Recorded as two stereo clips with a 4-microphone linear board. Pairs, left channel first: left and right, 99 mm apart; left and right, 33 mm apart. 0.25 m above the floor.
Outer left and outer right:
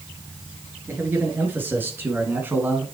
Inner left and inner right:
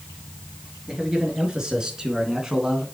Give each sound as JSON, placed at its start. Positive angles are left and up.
{"t": 0.9, "sound": "a man speaking", "side_deg": -20, "distance_m": 4.0}